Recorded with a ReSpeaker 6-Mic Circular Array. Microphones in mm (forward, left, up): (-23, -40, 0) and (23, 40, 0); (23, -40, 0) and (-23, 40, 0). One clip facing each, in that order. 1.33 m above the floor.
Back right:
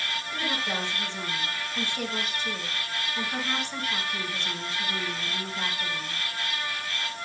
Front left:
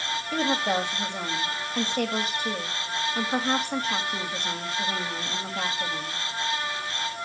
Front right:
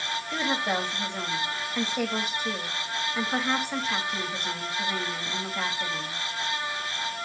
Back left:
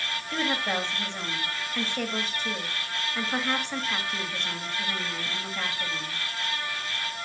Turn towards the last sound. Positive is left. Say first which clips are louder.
# front left 7 dB, front right 1 dB
turn(degrees=20)